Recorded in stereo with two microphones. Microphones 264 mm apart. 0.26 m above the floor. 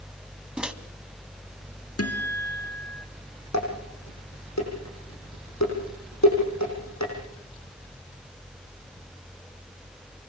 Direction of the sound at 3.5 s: 85° left.